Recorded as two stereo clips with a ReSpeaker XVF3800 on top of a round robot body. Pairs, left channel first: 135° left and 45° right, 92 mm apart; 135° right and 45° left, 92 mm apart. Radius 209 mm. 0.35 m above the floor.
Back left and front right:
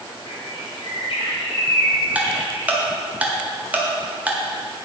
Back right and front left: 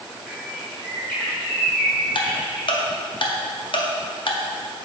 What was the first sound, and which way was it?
A bird, 145° left.